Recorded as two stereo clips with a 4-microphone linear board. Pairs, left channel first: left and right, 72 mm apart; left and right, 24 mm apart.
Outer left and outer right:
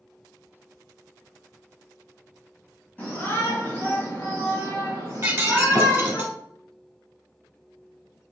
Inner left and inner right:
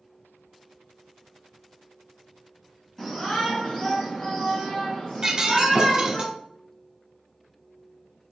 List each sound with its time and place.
3.0 s a shout: 30° left (ahead or behind), 1.8 m; by 6.2 s 50° left (ahead or behind), 3.5 m
5.2 s breaking glass: 30° right (ahead or behind), 0.9 m